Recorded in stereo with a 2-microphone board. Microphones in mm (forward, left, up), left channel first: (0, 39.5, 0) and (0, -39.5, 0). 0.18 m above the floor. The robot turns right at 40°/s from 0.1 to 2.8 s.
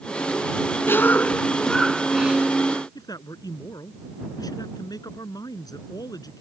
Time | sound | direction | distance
0.9 | a cough | 140° left | ?
3.0 | a man speaking | 55° left (ahead or behind) | ?